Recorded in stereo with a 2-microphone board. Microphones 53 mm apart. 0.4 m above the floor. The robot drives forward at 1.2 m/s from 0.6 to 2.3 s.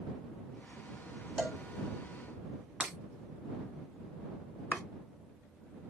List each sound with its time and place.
1.4 s a cowbell: 5° right (ahead or behind), 1.5 m
2.8 s breaking glass: 15° right (ahead or behind), 1.1 m
4.7 s chopping: 25° left (ahead or behind), 1.2 m